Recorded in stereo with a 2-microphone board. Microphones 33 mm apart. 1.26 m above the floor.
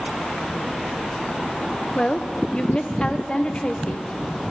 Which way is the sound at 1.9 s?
30° left (ahead or behind).